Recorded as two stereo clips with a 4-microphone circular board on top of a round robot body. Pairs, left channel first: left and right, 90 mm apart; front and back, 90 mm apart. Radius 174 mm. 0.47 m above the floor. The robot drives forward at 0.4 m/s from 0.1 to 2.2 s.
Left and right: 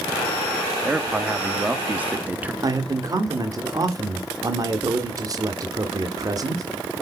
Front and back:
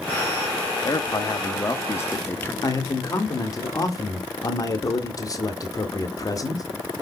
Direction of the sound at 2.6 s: 45° right.